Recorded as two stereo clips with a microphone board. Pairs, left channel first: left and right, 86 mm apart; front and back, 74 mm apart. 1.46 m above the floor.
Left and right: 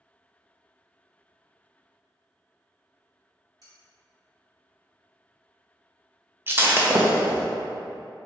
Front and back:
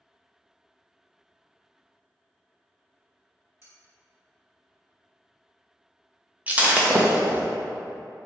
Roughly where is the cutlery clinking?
Behind right.